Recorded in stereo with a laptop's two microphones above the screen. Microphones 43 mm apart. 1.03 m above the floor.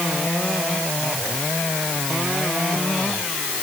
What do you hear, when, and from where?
Only background noise.